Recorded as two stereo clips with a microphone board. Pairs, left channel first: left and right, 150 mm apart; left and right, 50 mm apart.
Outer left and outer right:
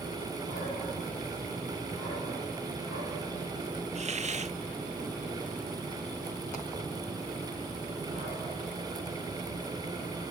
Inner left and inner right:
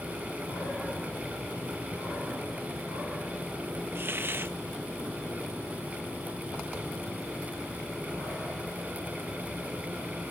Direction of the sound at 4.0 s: 50° right (ahead or behind).